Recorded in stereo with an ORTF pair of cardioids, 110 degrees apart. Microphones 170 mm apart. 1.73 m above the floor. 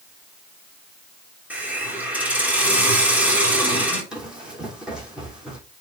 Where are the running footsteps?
5° right, 6 m.